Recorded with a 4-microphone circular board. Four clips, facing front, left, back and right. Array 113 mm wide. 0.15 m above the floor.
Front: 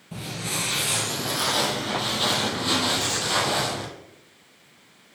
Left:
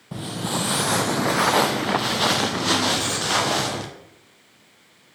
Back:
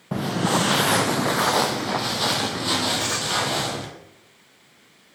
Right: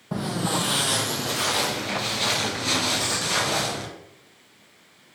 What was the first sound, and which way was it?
Footsteps, 155° right.